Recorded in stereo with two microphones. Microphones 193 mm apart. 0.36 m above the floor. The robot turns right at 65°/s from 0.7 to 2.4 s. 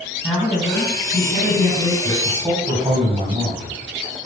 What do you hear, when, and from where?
0.2 s a woman speaking: 175° right, 3.5 m; by 1.9 s 95° right, 3.5 m
2.0 s a man speaking: 45° right (ahead or behind), 2.5 m; by 3.8 s 25° right (ahead or behind), 2.5 m